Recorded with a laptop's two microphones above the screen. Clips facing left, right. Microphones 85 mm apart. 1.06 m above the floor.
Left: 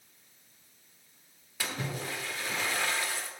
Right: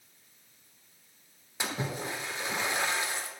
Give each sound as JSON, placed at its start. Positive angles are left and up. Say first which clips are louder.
{"t": 1.6, "sound": "a splash", "louder": "right 2 dB", "side_deg": -20, "distance_m": 1.4}